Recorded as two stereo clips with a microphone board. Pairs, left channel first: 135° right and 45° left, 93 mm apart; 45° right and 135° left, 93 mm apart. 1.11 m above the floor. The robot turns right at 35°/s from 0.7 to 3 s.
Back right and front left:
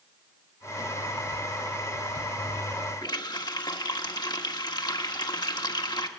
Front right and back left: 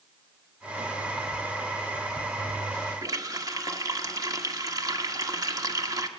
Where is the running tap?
175° right, 1.4 m.